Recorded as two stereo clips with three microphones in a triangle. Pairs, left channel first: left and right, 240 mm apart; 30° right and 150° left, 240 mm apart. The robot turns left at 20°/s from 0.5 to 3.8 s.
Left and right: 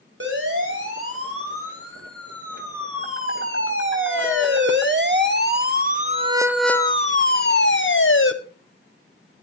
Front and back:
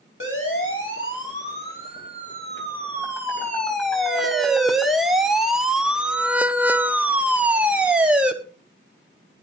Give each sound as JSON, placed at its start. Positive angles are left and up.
{"t": 0.2, "sound": "a siren", "azimuth_deg": -55, "distance_m": 6.0}